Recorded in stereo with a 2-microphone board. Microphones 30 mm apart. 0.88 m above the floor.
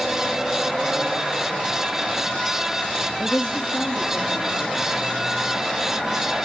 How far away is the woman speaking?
About 1.1 m.